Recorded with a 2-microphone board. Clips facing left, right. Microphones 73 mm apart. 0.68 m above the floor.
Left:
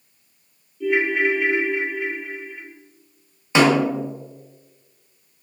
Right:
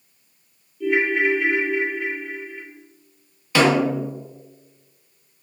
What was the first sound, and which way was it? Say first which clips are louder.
A ringtone: even; centre (ahead or behind).